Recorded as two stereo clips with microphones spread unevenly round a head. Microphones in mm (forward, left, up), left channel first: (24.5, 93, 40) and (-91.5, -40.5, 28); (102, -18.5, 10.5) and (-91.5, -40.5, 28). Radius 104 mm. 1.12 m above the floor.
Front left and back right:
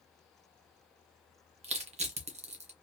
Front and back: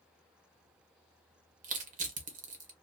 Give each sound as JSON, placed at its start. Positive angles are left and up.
{"t": 1.6, "sound": "crushing", "azimuth_deg": -140, "distance_m": 0.9}